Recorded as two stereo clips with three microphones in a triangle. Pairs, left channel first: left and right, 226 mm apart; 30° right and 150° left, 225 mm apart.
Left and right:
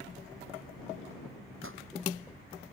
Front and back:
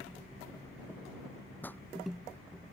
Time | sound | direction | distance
1.6 | a pop | 110° right | ?